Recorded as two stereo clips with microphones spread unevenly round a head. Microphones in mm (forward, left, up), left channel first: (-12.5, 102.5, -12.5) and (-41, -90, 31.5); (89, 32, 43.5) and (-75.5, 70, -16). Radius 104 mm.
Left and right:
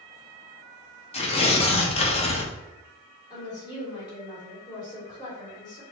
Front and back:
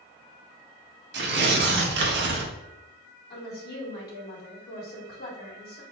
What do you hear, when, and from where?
1.1 s tearing paper: 145° left, 0.7 m
3.3 s a woman speaking: 15° left, 1.6 m